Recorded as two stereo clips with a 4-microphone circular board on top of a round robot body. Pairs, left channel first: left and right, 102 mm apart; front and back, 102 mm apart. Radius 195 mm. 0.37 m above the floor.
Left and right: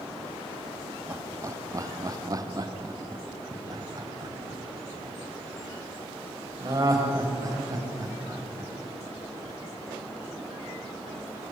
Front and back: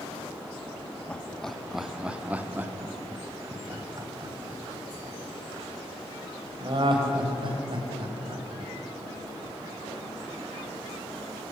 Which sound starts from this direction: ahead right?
Laughter, at 1.1 s.